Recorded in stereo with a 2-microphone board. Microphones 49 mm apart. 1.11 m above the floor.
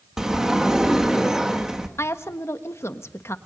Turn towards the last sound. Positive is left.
turn(degrees=70)  # may be behind; listen again after turning